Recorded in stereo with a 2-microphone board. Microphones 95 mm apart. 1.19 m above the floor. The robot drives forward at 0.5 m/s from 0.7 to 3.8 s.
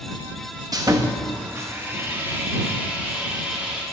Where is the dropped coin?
I don't hear a dropped coin.